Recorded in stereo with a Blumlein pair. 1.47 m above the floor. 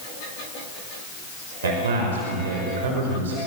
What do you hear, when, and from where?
1.6 s a man speaking: 60° right, 5.5 m